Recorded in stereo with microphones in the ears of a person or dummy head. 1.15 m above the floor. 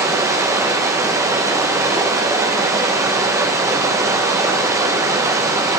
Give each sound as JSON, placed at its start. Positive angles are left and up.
{"t": 0.0, "sound": "running water", "side_deg": -15, "distance_m": 0.8}